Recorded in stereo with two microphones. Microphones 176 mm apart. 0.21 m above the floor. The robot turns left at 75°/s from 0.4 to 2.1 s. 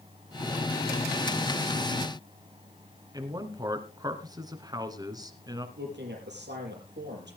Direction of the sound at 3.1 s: 20° right (ahead or behind).